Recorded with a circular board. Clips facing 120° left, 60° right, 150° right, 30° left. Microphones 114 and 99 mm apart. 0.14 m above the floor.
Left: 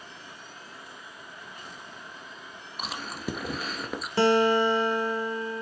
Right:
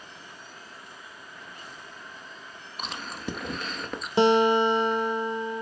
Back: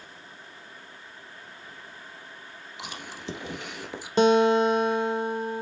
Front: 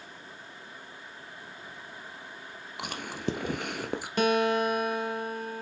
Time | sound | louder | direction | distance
2.8 | chewing | left 1 dB, front 7 dB | 35° left | 1.3 m
4.2 | a guitar | right 2 dB, back 6 dB | 110° right | 0.6 m